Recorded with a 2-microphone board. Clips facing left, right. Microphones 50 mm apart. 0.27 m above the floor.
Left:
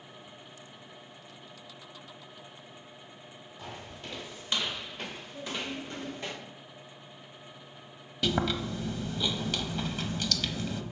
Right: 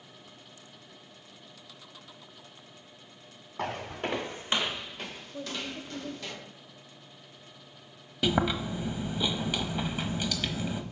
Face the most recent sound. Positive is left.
turn(degrees=-15)  # may be behind; listen again after turning